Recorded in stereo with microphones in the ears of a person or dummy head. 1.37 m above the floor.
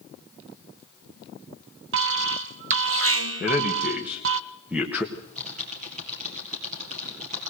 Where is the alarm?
60° right (ahead or behind), 0.5 m.